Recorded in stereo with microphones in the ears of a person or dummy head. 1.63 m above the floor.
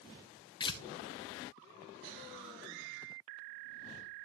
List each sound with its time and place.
0.6 s tearing paper: 25° left (ahead or behind), 0.6 m